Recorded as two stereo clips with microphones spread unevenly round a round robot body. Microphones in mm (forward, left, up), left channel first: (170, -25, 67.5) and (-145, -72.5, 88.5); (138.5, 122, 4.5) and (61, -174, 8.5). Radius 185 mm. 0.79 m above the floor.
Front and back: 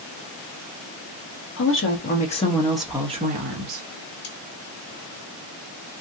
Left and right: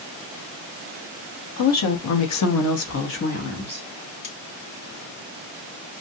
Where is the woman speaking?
50° left, 1.1 m; by 3.9 s 150° left, 0.8 m.